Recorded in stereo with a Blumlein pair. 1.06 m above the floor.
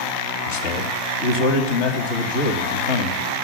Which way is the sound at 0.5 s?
50° left.